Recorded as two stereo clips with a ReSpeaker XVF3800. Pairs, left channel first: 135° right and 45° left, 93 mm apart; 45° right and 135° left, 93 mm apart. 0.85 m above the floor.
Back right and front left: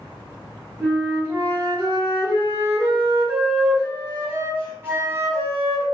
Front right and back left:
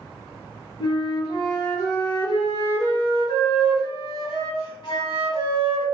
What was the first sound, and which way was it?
A flute, 15° right.